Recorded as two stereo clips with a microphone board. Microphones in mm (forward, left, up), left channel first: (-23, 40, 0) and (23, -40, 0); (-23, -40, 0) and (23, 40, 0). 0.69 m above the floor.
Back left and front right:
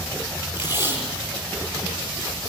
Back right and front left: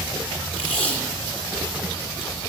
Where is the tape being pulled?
120° right, 8 m.